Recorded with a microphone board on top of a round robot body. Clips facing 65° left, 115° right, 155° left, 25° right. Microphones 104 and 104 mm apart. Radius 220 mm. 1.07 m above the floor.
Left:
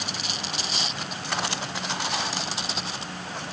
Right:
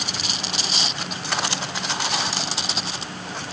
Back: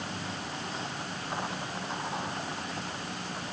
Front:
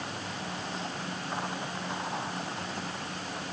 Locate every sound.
Only background noise.